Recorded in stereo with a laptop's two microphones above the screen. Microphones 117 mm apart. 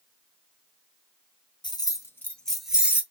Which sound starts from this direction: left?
Keys jangling, at 1.6 s.